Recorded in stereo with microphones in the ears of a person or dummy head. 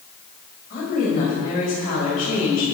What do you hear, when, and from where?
0.7 s a woman speaking: 50° left (ahead or behind), 6.5 m